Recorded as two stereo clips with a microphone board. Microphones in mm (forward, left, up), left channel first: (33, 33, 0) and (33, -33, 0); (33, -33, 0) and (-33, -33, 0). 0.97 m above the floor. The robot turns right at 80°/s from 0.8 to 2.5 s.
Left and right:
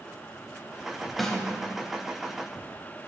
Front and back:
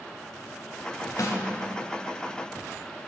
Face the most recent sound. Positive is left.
turn(degrees=105)